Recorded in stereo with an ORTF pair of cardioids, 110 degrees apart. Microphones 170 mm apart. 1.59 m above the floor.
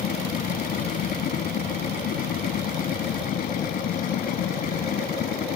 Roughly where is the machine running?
Ahead left.